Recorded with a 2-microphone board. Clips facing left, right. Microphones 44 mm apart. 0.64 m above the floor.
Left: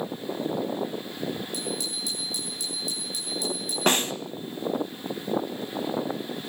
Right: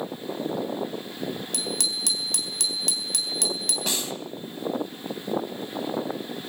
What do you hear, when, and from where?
1.5 s a bicycle bell: 85° right, 3 m
3.9 s a snare drum: 45° left (ahead or behind), 0.8 m